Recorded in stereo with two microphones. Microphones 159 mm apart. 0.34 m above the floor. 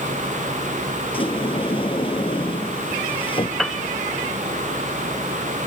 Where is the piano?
Centre (ahead or behind).